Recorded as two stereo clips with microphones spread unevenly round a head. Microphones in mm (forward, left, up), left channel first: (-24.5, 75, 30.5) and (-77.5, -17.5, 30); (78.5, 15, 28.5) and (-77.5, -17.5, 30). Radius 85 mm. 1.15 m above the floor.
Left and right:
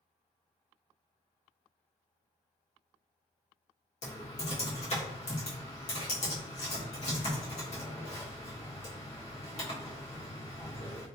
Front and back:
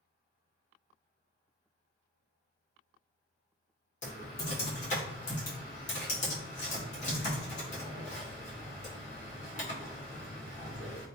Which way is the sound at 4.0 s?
55° left.